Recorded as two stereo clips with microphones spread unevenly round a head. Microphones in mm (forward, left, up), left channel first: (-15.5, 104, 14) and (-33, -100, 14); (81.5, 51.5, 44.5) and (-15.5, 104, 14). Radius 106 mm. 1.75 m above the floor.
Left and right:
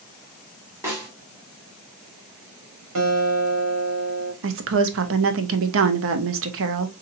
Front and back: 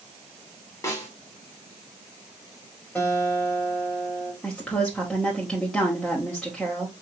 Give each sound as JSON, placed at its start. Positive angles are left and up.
{"t": 0.8, "sound": "a snare drum", "azimuth_deg": -20, "distance_m": 1.7}
{"t": 3.0, "sound": "a guitar", "azimuth_deg": -115, "distance_m": 1.7}
{"t": 4.4, "sound": "a woman speaking", "azimuth_deg": -110, "distance_m": 0.7}